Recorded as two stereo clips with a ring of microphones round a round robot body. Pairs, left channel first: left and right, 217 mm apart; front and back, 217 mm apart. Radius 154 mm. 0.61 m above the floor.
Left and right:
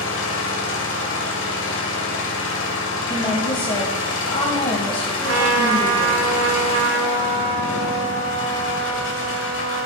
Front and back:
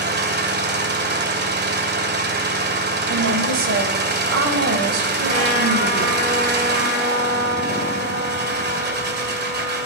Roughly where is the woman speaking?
Behind.